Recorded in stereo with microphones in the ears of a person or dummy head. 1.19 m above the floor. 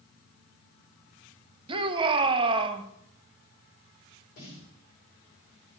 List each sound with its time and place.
1.7 s a shout: 25° right (ahead or behind), 1.2 m
4.4 s a snare drum: 50° left (ahead or behind), 4 m